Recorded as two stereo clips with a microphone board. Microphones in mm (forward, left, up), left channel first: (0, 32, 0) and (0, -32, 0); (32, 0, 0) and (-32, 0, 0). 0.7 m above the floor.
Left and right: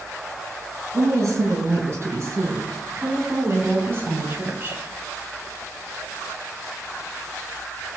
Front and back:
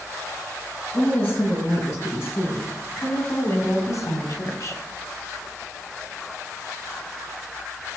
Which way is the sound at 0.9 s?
50° right.